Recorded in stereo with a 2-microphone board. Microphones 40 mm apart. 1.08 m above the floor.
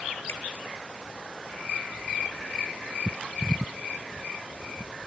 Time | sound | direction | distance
0.3 | a finger snap | 75° left (ahead or behind) | 1.9 m